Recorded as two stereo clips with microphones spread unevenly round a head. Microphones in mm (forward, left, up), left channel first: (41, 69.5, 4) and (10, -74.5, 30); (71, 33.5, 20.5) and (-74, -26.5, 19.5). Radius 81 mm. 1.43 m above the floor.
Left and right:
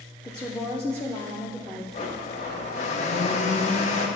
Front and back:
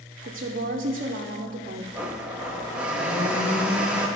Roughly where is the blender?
Behind left.